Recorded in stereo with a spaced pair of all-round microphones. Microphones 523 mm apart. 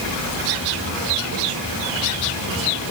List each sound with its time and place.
Only background noise.